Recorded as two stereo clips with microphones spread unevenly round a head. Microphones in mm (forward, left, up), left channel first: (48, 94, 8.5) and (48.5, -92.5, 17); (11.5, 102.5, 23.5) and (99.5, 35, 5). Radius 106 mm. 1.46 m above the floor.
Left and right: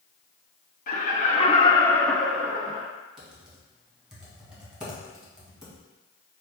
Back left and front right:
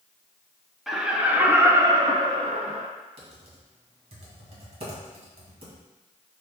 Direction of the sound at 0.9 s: 50° left.